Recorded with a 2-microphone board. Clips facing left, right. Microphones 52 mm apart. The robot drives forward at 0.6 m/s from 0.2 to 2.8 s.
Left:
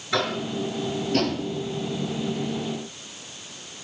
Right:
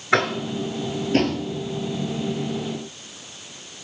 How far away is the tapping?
About 1.5 m.